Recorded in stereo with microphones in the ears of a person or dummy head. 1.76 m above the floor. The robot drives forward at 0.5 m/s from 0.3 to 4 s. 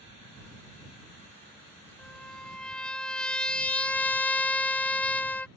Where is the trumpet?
Centre (ahead or behind); by 5.5 s 5° left (ahead or behind).